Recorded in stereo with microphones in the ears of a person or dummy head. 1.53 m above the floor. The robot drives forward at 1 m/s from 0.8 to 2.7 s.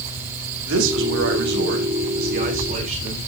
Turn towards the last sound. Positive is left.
turn(degrees=-40)  # may be behind; listen again after turning